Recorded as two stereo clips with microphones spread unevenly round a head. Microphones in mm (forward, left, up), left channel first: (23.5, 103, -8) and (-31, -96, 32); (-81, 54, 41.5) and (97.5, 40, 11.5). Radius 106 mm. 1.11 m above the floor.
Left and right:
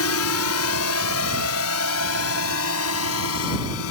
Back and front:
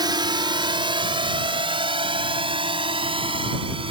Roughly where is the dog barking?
I don't hear a dog barking.